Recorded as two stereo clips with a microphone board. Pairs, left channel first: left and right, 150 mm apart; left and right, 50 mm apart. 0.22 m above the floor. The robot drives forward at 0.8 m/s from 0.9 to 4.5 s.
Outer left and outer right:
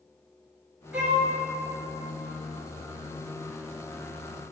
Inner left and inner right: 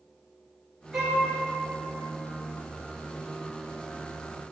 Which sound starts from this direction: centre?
A violin, at 0.9 s.